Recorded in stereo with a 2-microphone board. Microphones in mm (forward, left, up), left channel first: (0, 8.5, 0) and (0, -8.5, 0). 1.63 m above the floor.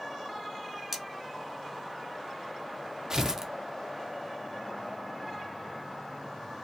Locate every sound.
0.9 s cutlery clinking: 20° right (ahead or behind), 0.8 m
3.1 s tearing paper: 40° right (ahead or behind), 0.5 m